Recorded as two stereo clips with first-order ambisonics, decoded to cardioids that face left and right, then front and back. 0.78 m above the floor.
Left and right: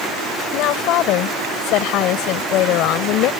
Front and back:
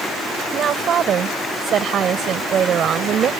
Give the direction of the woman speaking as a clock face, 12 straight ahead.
8 o'clock.